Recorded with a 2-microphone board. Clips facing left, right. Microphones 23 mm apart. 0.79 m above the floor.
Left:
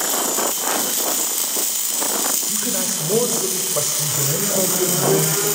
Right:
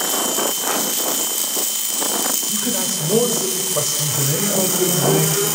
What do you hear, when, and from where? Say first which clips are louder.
2.5 s a man speaking: right 1 dB; centre (ahead or behind), 2.5 m